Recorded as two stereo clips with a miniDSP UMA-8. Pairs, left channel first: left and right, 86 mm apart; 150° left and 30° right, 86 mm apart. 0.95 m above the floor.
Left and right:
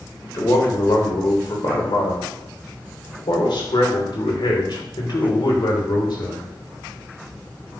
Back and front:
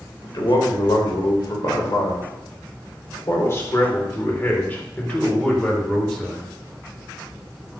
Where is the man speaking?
125° left, 4 m; by 6.5 s 60° left, 3.5 m.